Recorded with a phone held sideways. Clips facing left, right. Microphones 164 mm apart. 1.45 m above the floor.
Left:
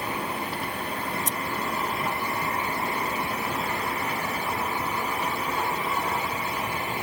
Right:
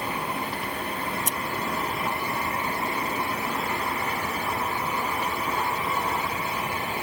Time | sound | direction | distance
1.1 | scissors | 80° right | ?